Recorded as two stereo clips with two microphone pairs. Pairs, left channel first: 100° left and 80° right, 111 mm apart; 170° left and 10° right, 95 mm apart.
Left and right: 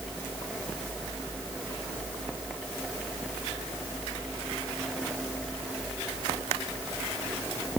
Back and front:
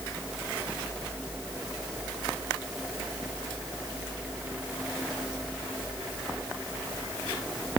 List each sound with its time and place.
Only background noise.